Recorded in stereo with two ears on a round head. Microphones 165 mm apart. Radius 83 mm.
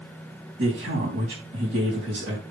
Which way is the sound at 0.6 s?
70° right (ahead or behind).